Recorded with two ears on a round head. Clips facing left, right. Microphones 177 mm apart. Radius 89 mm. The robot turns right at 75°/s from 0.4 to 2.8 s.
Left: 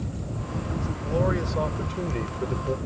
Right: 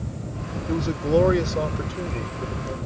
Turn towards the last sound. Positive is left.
turn(degrees=60)